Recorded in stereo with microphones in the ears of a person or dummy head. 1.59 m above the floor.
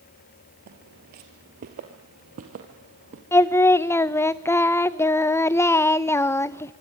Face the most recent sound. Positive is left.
turn(degrees=10)  # may be behind; listen again after turning